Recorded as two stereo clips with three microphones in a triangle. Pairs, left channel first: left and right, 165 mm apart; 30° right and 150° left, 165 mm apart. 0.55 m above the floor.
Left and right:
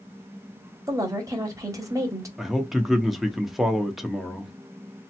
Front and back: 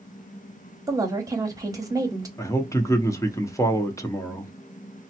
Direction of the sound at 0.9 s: 150° right.